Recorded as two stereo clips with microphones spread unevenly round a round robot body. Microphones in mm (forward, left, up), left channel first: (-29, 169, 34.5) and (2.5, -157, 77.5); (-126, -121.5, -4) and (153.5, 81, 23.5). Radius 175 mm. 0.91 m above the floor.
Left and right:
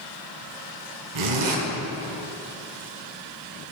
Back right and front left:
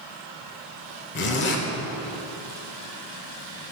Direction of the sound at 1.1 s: 85° right.